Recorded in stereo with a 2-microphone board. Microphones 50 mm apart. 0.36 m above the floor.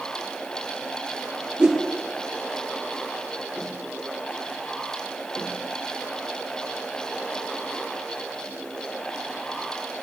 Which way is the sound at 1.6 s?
15° right (ahead or behind).